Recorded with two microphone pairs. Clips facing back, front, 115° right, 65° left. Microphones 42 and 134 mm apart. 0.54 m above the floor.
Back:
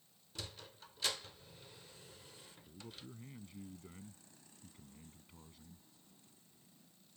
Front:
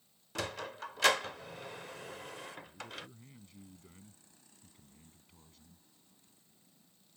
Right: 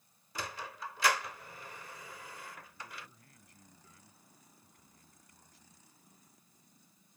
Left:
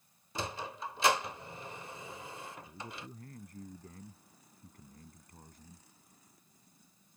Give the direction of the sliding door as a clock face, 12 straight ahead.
12 o'clock.